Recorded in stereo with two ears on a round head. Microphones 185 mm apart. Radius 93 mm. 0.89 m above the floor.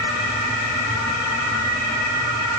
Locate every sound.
Only background noise.